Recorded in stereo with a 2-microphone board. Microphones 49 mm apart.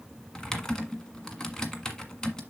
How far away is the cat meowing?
No cat meowing in this recording.